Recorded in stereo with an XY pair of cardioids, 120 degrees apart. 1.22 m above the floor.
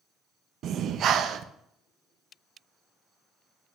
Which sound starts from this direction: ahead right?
Breathing, at 0.6 s.